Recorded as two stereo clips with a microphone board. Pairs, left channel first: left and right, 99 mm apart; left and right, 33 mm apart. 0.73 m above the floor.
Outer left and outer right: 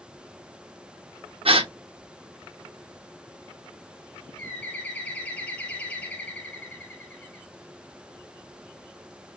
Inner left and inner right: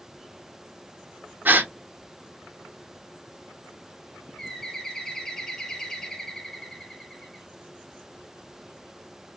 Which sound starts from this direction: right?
A gasp, at 1.4 s.